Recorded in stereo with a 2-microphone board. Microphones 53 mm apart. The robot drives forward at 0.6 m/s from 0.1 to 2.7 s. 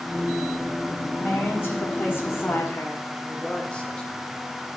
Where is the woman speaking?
30° left (ahead or behind), 1.6 m; by 3.0 s 40° left (ahead or behind), 1.3 m.